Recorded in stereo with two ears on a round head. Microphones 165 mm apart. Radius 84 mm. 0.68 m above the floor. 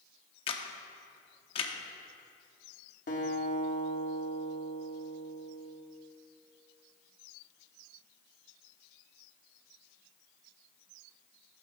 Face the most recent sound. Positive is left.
turn(degrees=45)  # may be behind; listen again after turning